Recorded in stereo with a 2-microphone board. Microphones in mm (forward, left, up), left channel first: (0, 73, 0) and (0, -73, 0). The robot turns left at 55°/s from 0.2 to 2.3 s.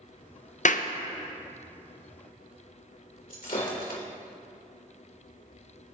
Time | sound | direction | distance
0.7 | a clap | 55° left (ahead or behind) | 0.7 m
3.3 | breaking glass | 70° left (ahead or behind) | 3 m